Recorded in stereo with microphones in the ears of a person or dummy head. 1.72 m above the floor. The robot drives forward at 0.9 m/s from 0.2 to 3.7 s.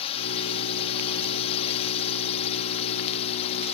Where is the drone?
30° left (ahead or behind).